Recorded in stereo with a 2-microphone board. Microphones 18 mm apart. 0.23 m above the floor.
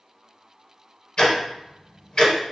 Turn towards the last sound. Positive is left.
turn(degrees=45)  # may be behind; listen again after turning